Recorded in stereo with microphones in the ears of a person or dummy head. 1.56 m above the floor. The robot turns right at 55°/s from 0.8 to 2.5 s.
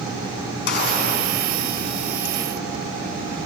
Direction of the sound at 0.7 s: 75° left (ahead or behind).